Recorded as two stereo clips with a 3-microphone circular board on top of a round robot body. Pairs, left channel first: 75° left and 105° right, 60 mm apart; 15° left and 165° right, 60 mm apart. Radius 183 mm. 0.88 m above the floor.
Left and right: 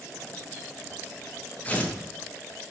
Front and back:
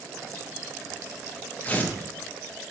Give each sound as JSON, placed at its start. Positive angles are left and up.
{"t": 1.6, "sound": "tearing paper", "azimuth_deg": 45, "distance_m": 0.8}